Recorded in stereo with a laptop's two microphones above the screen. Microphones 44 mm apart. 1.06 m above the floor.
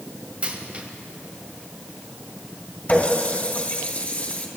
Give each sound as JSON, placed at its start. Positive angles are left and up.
{"t": 0.4, "sound": "a dropped coin", "side_deg": -30, "distance_m": 2.0}
{"t": 2.9, "sound": "a running tap", "side_deg": 40, "distance_m": 3.0}